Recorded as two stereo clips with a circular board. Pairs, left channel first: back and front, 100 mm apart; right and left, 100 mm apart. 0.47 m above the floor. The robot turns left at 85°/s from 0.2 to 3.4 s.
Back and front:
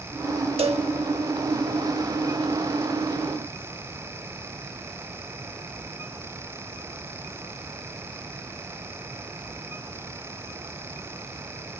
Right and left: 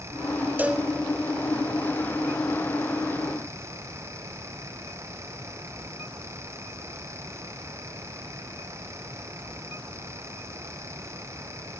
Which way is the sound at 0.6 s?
20° left.